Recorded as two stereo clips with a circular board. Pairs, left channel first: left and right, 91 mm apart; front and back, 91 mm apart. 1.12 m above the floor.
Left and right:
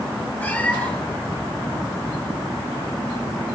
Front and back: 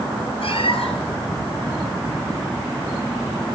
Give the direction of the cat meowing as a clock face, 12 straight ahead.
11 o'clock.